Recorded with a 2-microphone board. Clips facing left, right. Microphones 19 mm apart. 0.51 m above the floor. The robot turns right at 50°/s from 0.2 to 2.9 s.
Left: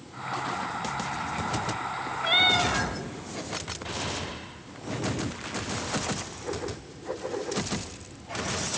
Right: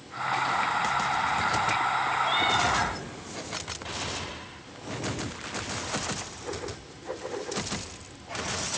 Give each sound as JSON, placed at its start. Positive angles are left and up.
{"t": 2.2, "sound": "a cat meowing", "azimuth_deg": 130, "distance_m": 1.3}